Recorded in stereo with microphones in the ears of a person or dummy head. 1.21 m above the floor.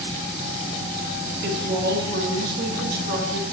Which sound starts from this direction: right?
A woman speaking, at 1.4 s.